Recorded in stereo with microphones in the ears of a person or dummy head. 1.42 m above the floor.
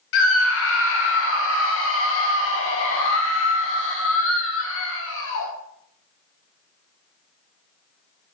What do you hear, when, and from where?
0.1 s a scream: 70° left (ahead or behind), 0.6 m